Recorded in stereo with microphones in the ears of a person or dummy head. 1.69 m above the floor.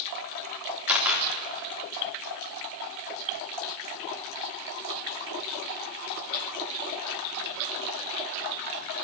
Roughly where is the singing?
I don't hear singing.